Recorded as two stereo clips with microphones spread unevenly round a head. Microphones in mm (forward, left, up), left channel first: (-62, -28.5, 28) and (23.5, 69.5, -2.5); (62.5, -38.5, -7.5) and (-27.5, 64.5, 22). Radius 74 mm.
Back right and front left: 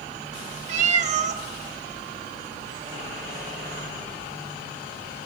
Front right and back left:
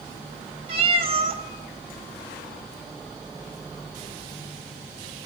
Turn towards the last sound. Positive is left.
turn(degrees=85)